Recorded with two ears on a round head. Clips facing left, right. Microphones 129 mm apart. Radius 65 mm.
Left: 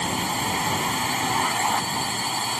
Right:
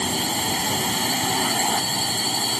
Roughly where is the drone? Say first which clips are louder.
Even; right.